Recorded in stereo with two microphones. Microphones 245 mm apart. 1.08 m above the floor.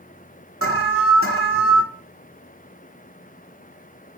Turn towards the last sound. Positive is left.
turn(degrees=60)  # may be behind; listen again after turning